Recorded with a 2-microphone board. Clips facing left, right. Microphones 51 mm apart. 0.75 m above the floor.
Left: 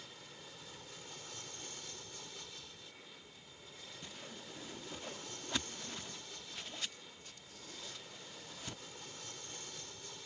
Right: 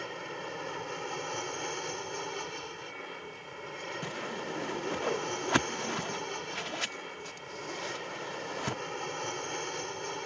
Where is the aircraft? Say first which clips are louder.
Right 16 dB; 55° right (ahead or behind).